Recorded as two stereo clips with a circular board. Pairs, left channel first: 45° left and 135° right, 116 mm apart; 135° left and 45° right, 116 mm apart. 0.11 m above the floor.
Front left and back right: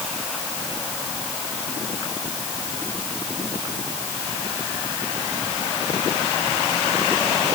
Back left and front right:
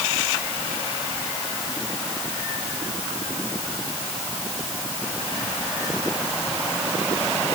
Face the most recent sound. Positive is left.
No sound to turn to.